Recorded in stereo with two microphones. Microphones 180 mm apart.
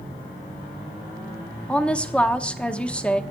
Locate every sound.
1.7 s a woman speaking: 5° left (ahead or behind), 0.8 m